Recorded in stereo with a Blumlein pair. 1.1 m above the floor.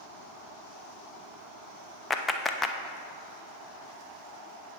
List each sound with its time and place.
2.1 s a clap: 15° left, 0.7 m